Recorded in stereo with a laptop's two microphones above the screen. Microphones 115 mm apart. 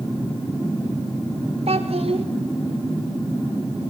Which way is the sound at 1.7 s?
65° right (ahead or behind).